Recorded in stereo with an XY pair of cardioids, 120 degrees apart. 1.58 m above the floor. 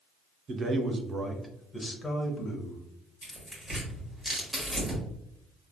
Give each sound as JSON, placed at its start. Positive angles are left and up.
{"t": 0.5, "sound": "a man speaking", "azimuth_deg": -50, "distance_m": 0.9}
{"t": 3.2, "sound": "tearing paper", "azimuth_deg": 0, "distance_m": 1.4}